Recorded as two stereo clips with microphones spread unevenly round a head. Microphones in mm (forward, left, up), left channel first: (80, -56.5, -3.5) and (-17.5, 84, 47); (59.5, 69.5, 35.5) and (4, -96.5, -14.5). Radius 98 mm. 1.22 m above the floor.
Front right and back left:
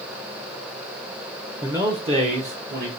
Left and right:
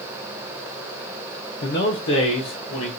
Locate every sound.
1.6 s a man speaking: 35° left, 0.6 m; by 2.9 s 85° left, 1.0 m